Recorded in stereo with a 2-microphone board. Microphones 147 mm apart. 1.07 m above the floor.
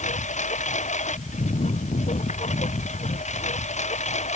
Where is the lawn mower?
60° left (ahead or behind); by 4.4 s 55° left (ahead or behind).